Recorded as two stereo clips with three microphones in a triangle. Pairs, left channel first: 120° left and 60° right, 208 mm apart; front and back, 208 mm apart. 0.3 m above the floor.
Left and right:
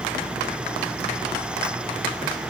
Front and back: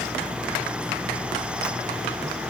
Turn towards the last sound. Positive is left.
No sound to turn to.